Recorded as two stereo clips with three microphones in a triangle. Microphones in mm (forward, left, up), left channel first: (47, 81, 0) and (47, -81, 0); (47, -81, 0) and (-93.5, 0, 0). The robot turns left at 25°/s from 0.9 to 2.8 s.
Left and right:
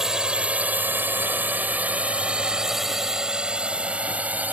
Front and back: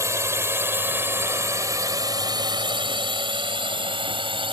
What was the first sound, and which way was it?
A drone, 170° right.